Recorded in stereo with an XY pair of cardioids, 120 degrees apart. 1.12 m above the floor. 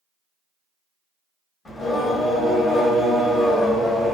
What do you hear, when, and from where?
1.6 s singing: 30° left, 1.2 m